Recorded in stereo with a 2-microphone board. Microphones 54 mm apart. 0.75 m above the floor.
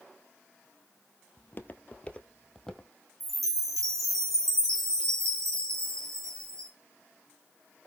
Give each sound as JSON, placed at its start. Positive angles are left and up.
{"t": 1.4, "sound": "footsteps", "side_deg": 40, "distance_m": 0.9}
{"t": 3.2, "sound": "a chime", "side_deg": -80, "distance_m": 2.5}